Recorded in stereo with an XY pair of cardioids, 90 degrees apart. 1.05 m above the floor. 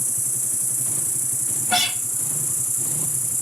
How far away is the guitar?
About 1.6 m.